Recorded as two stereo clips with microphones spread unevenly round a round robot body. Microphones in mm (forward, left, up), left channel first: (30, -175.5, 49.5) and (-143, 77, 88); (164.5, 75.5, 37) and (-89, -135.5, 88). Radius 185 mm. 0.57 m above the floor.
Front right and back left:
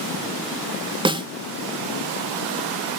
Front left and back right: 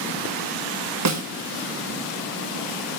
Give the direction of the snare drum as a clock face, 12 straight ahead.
5 o'clock.